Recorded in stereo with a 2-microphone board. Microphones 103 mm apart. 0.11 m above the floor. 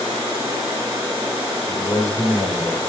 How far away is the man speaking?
About 8.5 m.